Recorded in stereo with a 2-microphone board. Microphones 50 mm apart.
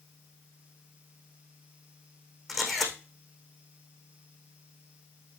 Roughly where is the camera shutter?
Centre.